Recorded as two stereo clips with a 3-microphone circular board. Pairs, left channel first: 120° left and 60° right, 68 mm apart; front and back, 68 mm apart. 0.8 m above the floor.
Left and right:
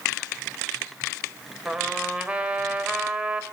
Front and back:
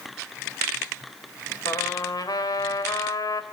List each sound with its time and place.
1.6 s a trumpet: 15° left, 2.5 m